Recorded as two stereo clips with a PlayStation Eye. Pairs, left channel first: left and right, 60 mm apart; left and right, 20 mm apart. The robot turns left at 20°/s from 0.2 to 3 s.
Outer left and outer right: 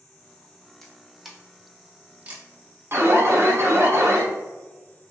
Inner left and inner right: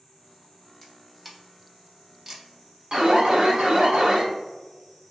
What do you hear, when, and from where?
0.8 s a camera shutter: 5° left (ahead or behind), 0.7 m; by 2.5 s 25° right (ahead or behind), 0.7 m
2.9 s an alarm: 45° right (ahead or behind), 0.7 m